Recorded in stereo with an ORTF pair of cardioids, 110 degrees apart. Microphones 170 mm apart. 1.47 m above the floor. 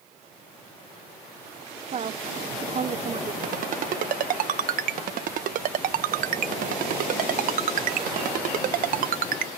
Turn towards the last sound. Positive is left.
turn(degrees=-60)